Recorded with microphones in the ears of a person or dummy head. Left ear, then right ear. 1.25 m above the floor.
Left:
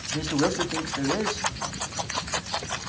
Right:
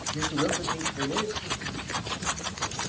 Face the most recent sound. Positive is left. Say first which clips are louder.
# left 4 dB
turn(degrees=35)  # may be behind; listen again after turning